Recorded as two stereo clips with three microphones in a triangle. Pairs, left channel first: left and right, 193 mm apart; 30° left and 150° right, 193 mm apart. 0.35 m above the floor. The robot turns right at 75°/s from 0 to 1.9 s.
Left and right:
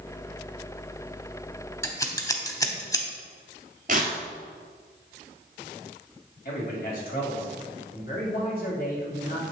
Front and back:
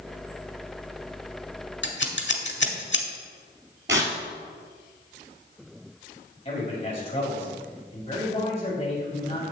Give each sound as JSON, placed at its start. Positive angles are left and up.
{"t": 1.8, "sound": "scissors", "azimuth_deg": 15, "distance_m": 0.8}
{"t": 3.9, "sound": "tearing paper", "azimuth_deg": -135, "distance_m": 1.2}
{"t": 6.5, "sound": "a man speaking", "azimuth_deg": 80, "distance_m": 2.0}